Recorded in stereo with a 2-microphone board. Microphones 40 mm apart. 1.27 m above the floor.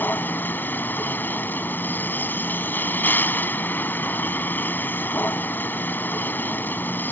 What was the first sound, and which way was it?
A vehicle, 55° left (ahead or behind).